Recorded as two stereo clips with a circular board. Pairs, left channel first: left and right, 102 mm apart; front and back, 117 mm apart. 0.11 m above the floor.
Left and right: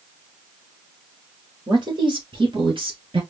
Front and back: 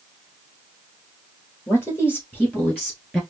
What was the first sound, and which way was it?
A man speaking, 60° right.